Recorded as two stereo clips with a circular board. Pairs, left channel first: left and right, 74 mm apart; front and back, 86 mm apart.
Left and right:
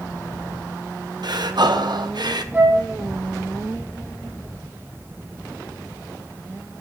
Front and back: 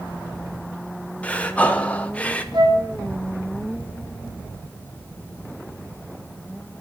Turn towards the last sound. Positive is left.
turn(degrees=-155)